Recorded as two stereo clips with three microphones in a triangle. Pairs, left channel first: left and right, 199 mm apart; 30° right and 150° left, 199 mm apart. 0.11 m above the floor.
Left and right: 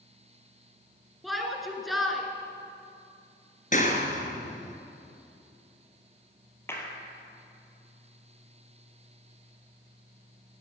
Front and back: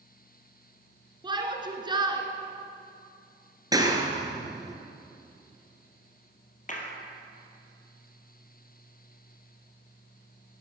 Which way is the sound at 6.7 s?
15° left.